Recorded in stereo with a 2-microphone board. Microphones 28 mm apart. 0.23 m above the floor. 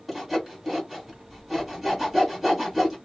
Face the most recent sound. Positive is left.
turn(degrees=-10)  # may be behind; listen again after turning